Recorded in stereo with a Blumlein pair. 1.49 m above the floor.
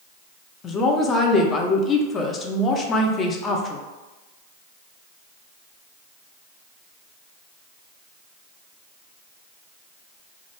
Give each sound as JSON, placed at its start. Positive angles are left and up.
{"t": 0.6, "sound": "a woman speaking", "azimuth_deg": 20, "distance_m": 0.5}